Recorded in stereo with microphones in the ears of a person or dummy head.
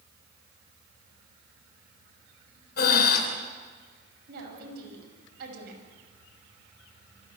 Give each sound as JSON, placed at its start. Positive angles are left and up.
{"t": 2.8, "sound": "breathing", "side_deg": 60, "distance_m": 3.0}
{"t": 4.3, "sound": "a woman speaking", "side_deg": -70, "distance_m": 7.0}